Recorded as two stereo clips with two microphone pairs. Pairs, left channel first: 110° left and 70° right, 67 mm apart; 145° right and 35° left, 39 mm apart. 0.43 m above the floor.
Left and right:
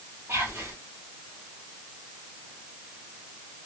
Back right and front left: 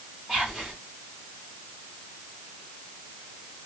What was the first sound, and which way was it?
Whispering, 40° right.